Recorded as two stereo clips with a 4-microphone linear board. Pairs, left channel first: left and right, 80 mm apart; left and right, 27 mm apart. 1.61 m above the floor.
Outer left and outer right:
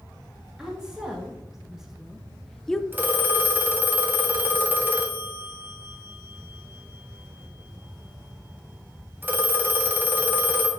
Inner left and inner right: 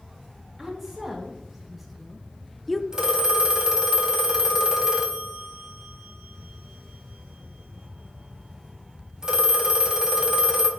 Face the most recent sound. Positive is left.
turn(degrees=-25)  # may be behind; listen again after turning